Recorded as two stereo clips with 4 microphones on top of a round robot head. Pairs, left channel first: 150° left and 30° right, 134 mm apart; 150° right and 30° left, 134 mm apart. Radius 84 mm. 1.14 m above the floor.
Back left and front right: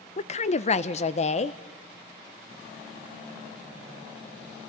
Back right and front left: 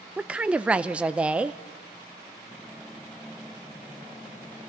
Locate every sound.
0.2 s a woman speaking: 115° left, 0.7 m